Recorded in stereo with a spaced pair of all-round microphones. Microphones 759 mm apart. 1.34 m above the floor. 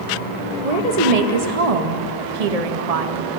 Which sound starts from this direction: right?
A woman speaking, at 0.6 s.